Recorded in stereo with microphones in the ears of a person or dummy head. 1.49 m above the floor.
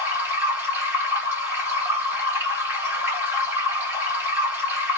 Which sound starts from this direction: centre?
Running water, at 0.0 s.